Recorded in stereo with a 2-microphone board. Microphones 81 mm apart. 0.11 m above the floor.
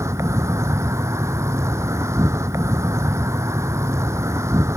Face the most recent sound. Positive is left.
turn(degrees=-35)  # may be behind; listen again after turning